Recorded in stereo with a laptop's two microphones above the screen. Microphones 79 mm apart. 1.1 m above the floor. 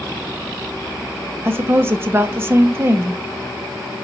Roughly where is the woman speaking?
Right.